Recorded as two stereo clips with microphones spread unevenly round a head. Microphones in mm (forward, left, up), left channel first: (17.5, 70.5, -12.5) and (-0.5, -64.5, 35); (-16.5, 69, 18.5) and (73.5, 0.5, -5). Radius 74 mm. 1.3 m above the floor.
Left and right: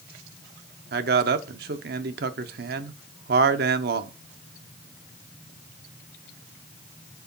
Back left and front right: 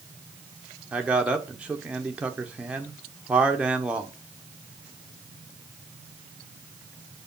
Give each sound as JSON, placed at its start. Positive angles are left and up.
{"t": 0.9, "sound": "a man speaking", "azimuth_deg": -105, "distance_m": 0.7}